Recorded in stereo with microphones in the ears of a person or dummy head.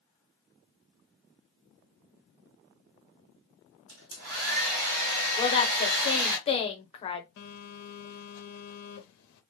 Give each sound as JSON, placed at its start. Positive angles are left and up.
{"t": 3.9, "sound": "a hair dryer", "side_deg": -55, "distance_m": 1.1}
{"t": 5.4, "sound": "a woman speaking", "side_deg": 35, "distance_m": 0.6}
{"t": 7.4, "sound": "a phone buzzing", "side_deg": 60, "distance_m": 0.6}